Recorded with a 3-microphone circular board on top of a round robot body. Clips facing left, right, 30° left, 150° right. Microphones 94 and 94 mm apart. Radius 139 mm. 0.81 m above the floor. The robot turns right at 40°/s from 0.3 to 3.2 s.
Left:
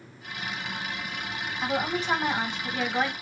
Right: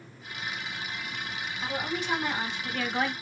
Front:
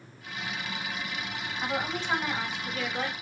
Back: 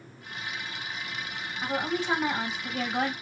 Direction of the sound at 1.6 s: 115° left.